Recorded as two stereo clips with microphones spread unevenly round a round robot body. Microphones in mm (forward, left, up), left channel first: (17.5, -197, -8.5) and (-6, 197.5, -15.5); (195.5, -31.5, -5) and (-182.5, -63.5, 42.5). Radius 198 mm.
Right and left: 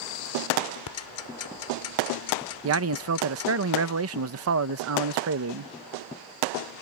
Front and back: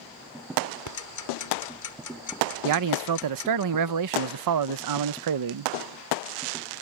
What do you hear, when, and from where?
0.9 s ticking: 40° right
2.6 s a man speaking: 145° left